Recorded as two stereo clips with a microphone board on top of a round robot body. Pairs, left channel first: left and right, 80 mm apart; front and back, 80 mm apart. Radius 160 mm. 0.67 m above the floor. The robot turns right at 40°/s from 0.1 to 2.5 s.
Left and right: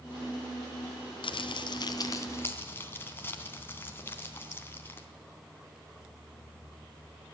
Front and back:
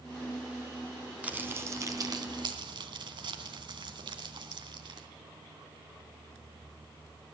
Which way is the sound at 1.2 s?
105° left.